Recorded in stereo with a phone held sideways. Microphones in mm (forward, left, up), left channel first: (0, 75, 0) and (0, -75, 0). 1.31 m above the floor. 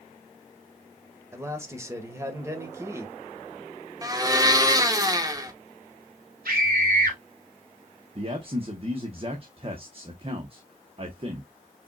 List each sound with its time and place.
1.3 s a man speaking: 20° right (ahead or behind), 1.4 m
4.0 s a blender: 25° right (ahead or behind), 0.9 m
6.5 s a scream: 80° right, 3 m
8.2 s a man speaking: 40° right (ahead or behind), 0.9 m